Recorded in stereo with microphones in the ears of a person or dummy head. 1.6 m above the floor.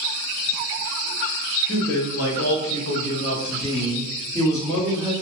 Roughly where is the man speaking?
Left.